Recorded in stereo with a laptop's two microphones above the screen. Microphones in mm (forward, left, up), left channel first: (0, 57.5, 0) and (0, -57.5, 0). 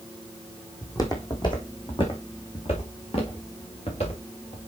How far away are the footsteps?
About 1.8 m.